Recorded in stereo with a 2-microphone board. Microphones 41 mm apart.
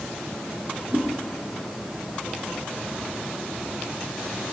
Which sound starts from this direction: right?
A whoosh, at 0.9 s.